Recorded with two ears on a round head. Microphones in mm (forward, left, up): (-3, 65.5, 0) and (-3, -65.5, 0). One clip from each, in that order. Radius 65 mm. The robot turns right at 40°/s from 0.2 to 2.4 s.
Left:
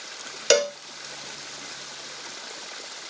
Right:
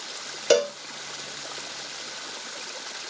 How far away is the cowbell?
About 0.5 m.